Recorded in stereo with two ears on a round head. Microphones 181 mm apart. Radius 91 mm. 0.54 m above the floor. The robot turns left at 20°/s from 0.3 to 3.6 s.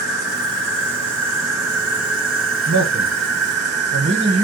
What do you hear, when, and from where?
0.0 s an insect: 55° right, 1.3 m; by 4.4 s 120° right, 1.3 m
2.7 s a man speaking: 60° right (ahead or behind), 1.9 m; by 4.4 s 50° right (ahead or behind), 1.9 m